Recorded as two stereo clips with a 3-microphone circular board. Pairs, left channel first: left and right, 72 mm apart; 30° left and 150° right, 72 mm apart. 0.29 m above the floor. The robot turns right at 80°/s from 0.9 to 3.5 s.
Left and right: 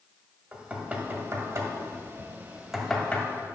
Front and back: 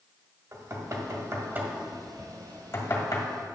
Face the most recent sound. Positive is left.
turn(degrees=55)